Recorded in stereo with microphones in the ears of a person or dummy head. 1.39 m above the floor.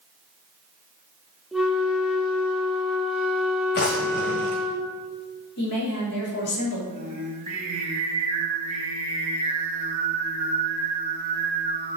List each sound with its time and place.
1.5 s a flute: centre (ahead or behind), 1.4 m
3.8 s a drawer: 30° left (ahead or behind), 0.7 m
5.6 s a woman speaking: 55° left (ahead or behind), 4 m
6.9 s singing: 35° right (ahead or behind), 3 m